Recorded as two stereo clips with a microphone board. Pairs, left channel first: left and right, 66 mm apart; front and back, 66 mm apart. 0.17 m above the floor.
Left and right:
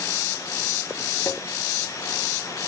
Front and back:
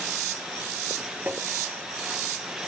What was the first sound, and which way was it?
Tapping, 120° left.